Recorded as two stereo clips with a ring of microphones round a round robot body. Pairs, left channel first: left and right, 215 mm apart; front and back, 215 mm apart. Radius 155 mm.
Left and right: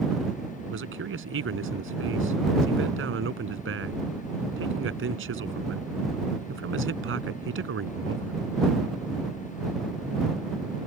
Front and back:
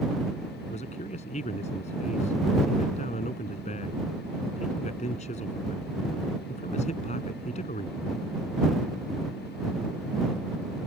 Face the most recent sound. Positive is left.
turn(degrees=-70)